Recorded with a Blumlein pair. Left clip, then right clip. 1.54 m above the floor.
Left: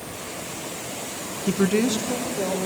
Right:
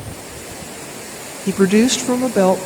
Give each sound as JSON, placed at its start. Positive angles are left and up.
{"t": 1.5, "sound": "a woman speaking", "azimuth_deg": -10, "distance_m": 0.8}